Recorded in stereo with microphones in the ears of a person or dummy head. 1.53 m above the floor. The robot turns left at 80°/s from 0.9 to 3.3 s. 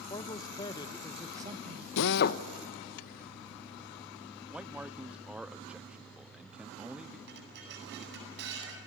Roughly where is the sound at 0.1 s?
Ahead left.